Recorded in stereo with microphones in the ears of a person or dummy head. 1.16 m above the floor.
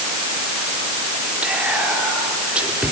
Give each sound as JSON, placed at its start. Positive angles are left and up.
{"t": 1.4, "sound": "whispering", "side_deg": -10, "distance_m": 3.5}